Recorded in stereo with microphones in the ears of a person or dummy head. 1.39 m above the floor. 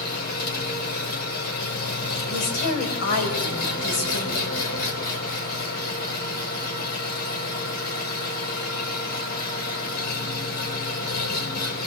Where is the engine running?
60° left (ahead or behind), 5 m.